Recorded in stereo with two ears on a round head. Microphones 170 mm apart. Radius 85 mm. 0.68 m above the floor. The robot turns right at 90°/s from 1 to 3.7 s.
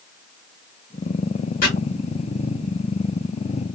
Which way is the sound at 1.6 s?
50° left (ahead or behind).